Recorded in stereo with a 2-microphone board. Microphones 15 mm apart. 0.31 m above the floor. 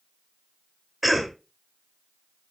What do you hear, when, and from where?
1.0 s a cough: centre (ahead or behind), 1.1 m